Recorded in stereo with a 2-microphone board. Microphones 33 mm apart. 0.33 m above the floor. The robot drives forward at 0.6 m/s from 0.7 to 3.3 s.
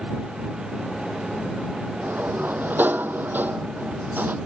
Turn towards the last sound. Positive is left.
turn(degrees=-70)  # may be behind; listen again after turning